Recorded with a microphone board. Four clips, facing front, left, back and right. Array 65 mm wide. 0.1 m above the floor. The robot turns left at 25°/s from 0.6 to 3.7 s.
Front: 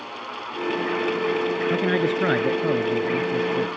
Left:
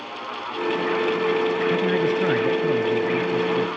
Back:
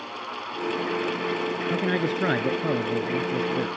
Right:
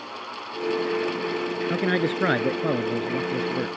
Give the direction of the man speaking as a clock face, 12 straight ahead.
2 o'clock.